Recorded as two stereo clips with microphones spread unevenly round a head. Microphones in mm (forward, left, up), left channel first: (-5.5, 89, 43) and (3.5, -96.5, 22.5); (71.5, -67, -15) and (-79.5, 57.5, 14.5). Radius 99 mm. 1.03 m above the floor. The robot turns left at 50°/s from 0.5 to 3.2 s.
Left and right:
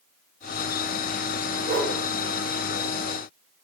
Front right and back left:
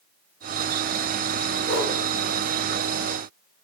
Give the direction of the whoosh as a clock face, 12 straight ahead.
2 o'clock.